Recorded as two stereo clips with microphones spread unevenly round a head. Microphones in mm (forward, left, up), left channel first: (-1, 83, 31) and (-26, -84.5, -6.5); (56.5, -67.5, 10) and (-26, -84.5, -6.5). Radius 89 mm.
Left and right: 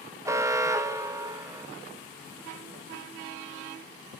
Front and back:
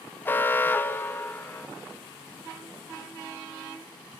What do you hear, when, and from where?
0.2 s an alarm: 60° right, 0.8 m